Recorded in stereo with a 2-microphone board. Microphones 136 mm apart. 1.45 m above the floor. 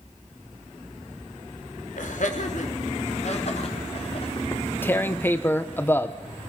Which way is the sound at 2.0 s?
70° left (ahead or behind).